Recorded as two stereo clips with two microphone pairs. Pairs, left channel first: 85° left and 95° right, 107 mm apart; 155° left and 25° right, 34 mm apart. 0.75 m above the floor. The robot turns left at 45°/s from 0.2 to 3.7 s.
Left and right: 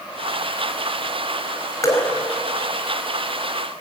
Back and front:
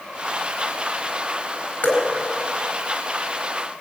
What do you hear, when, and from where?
1.8 s dripping: 145° left, 4.5 m; by 2.1 s 135° left, 4.5 m